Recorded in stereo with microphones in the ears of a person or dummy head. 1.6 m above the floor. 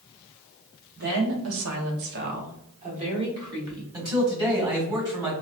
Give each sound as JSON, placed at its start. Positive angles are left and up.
{"t": 1.0, "sound": "a woman speaking", "side_deg": -65, "distance_m": 0.9}
{"t": 3.9, "sound": "a man speaking", "side_deg": -20, "distance_m": 1.2}